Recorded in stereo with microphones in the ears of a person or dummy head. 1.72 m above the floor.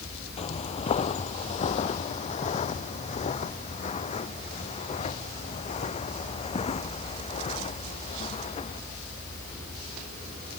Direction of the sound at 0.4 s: 30° left (ahead or behind).